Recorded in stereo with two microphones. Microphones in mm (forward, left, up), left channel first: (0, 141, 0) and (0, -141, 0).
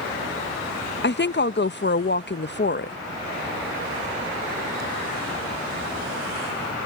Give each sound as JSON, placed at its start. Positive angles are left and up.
{"t": 1.0, "sound": "a woman speaking", "side_deg": 40}